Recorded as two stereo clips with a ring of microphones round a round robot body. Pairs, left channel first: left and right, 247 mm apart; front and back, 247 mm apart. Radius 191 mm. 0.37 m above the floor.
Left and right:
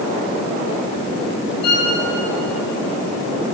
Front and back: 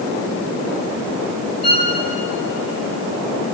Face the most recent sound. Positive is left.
turn(degrees=110)